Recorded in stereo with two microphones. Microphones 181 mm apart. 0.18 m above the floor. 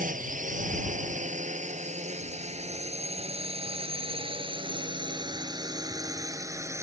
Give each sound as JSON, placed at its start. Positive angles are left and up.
{"t": 0.0, "sound": "a drone", "side_deg": -50}